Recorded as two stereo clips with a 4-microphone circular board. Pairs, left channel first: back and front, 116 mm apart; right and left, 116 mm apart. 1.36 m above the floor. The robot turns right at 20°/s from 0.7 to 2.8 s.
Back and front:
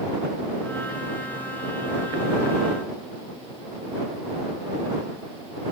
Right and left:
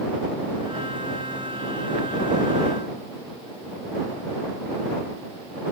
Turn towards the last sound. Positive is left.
No sound to turn to.